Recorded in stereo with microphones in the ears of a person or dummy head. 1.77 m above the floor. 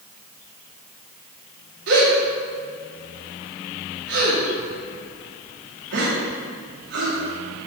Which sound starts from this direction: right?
A gasp, at 1.9 s.